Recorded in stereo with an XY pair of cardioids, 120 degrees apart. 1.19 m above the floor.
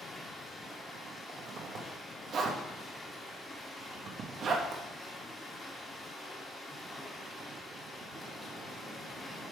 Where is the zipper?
50° right, 1.2 m.